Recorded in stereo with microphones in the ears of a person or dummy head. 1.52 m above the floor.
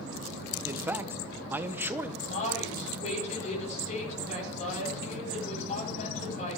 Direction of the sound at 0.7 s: 15° right (ahead or behind).